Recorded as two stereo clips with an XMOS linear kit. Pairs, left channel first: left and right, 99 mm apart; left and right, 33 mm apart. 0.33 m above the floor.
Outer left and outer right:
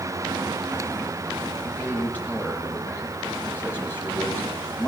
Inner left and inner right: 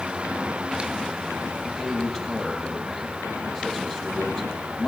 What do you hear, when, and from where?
1.6 s a man speaking: 20° left (ahead or behind), 10 m